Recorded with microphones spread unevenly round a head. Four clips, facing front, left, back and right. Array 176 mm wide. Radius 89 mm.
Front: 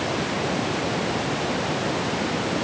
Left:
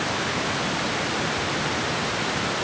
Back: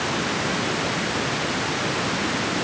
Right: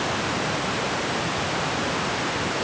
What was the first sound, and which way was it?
Only background noise.